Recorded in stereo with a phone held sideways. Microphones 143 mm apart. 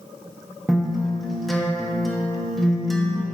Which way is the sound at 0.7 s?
Centre (ahead or behind).